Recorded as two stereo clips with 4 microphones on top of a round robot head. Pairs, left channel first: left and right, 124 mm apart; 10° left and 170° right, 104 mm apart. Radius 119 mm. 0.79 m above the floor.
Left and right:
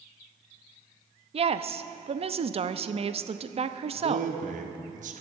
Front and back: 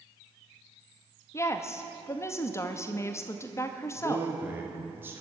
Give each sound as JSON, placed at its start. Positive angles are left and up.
{"t": 1.3, "sound": "a woman speaking", "azimuth_deg": -55, "distance_m": 0.8}
{"t": 3.9, "sound": "a man speaking", "azimuth_deg": -100, "distance_m": 1.5}